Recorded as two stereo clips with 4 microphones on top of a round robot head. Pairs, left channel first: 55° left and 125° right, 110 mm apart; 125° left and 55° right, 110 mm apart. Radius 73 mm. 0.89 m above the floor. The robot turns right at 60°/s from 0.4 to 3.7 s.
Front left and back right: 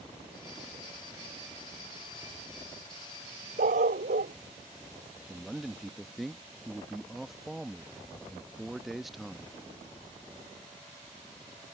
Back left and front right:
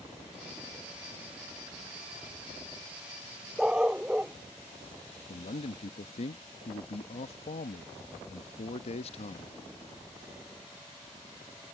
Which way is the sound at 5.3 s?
145° left.